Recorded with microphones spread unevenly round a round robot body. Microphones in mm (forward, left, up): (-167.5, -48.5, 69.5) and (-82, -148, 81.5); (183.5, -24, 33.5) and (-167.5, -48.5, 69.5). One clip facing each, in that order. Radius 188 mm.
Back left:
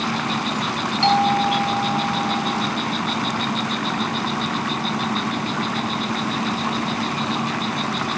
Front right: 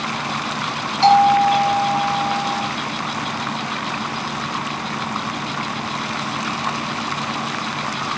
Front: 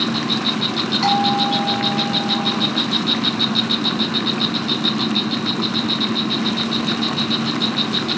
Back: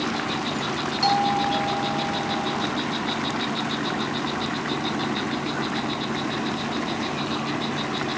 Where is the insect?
55° left.